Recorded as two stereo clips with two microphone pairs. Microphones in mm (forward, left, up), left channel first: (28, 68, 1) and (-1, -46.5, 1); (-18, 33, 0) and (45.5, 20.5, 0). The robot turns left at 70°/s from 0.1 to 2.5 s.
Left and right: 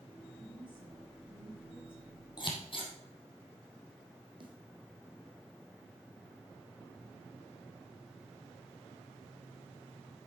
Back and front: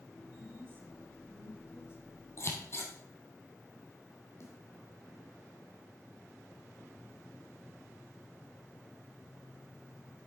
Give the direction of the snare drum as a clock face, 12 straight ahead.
5 o'clock.